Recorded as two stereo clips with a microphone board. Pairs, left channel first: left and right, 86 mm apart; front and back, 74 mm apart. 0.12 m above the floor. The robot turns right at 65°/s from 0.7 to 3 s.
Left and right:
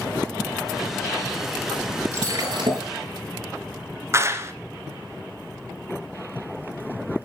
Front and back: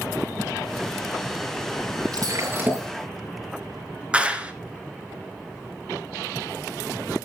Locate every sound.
2.1 s breaking glass: 150° right, 5.5 m; by 2.9 s 100° right, 5.5 m
4.1 s a clap: 115° right, 1.4 m